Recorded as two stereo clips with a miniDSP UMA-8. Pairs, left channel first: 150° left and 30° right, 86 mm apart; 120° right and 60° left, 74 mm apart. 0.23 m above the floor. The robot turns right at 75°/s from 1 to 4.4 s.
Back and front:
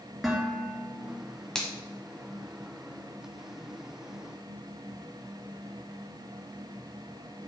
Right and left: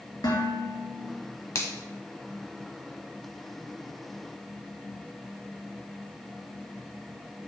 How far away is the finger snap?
About 1.0 m.